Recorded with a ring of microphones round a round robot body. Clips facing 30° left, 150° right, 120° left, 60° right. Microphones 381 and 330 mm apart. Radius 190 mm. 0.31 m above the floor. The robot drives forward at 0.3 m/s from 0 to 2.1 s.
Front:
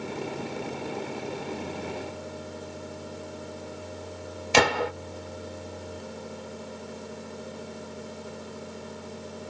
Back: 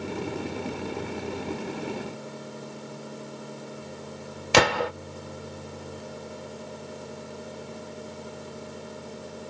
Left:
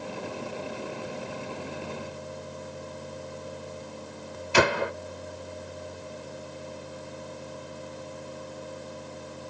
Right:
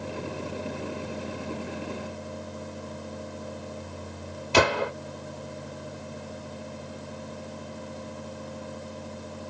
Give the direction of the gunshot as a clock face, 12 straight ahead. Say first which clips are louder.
Back 1 dB, right 1 dB; 4 o'clock.